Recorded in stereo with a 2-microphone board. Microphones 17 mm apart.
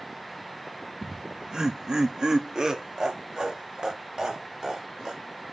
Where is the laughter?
40° right (ahead or behind), 0.8 m; by 5.2 s 45° right (ahead or behind), 4 m.